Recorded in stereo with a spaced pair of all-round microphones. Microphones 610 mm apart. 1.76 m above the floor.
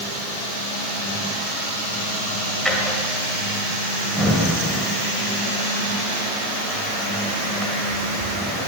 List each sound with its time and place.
2.6 s a drawer: centre (ahead or behind), 2 m